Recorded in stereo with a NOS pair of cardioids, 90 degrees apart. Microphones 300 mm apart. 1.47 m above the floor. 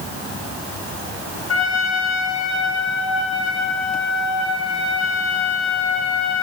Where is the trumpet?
65° left, 9 m.